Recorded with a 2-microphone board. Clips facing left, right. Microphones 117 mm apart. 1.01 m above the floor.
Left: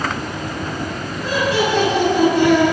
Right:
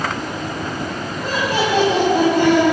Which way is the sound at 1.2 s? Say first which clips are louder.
Left 2 dB; 50° right (ahead or behind).